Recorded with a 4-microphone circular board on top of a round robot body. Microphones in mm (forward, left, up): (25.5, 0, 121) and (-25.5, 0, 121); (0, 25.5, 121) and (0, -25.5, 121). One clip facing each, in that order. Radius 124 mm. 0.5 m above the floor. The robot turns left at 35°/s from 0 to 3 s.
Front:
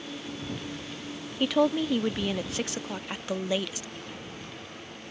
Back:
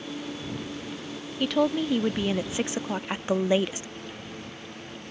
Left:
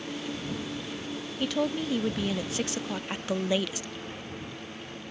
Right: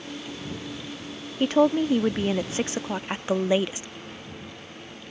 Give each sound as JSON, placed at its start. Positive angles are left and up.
{"t": 1.4, "sound": "a woman speaking", "azimuth_deg": -80}